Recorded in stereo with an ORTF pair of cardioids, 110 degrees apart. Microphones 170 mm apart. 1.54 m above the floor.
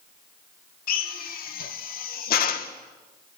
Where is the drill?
60° left, 1.9 m.